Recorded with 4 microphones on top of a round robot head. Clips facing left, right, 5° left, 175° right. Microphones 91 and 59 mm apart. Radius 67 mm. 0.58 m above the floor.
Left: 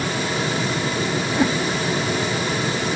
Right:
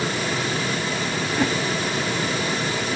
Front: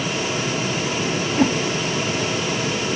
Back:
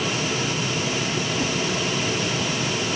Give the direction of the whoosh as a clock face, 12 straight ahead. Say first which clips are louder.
Left 2 dB, front 6 dB; 12 o'clock.